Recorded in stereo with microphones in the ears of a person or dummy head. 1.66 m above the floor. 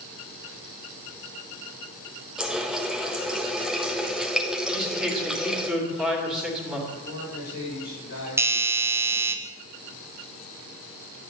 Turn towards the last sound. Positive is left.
turn(degrees=-15)  # may be behind; listen again after turning